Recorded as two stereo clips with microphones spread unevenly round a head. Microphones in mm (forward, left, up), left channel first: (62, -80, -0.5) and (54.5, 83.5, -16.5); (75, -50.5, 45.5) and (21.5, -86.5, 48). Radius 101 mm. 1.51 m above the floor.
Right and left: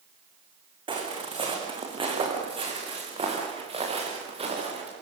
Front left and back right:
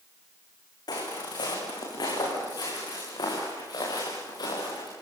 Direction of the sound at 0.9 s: 30° left.